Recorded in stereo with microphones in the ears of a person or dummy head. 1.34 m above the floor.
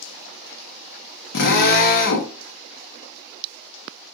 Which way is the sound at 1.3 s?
65° left (ahead or behind).